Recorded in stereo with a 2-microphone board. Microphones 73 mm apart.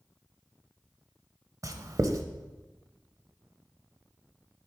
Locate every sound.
1.6 s writing: 50° right (ahead or behind), 0.6 m